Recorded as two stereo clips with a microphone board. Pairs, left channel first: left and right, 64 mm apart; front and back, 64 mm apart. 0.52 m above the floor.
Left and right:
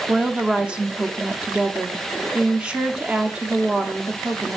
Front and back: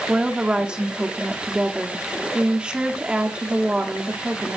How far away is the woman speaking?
About 0.8 m.